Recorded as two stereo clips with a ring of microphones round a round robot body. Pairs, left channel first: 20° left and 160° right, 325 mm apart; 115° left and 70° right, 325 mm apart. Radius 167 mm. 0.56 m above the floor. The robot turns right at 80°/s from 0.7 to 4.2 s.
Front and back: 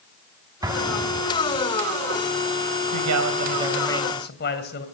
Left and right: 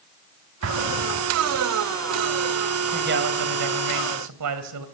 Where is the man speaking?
135° right, 3 m; by 4.8 s 35° right, 3 m.